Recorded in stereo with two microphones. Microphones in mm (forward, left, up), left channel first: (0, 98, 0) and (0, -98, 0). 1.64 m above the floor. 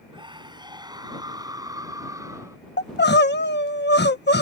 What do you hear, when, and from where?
0.1 s a scream: 25° right (ahead or behind); by 2.6 s 15° right (ahead or behind)
2.8 s crying: 60° left (ahead or behind)